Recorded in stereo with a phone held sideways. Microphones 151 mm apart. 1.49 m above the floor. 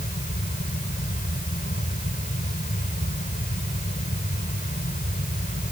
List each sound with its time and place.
0.0 s a fan: 65° left (ahead or behind)